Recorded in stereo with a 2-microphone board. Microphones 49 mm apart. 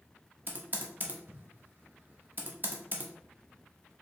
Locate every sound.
0.5 s typing on a keyboard: 40° right (ahead or behind), 0.8 m